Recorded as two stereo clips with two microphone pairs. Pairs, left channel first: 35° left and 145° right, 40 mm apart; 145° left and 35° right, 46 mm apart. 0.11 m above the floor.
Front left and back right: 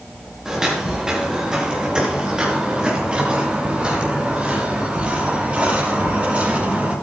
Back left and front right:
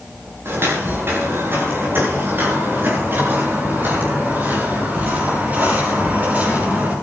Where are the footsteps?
70° right, 8.5 m; by 6.9 s 90° right, 10.5 m.